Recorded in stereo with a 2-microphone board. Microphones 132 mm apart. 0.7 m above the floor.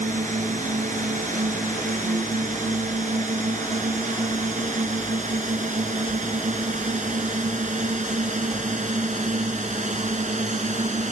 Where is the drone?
75° right (ahead or behind); by 11.1 s 65° right (ahead or behind).